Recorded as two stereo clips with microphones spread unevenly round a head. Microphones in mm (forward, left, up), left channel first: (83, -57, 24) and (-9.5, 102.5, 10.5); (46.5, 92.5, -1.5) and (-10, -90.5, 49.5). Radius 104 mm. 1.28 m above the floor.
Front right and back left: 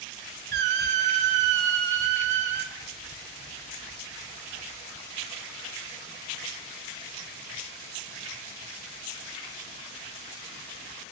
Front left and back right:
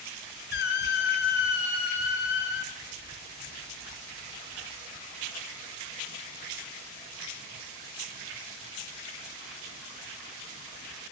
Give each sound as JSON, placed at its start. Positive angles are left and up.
{"t": 0.5, "sound": "a squeak", "azimuth_deg": 115, "distance_m": 1.5}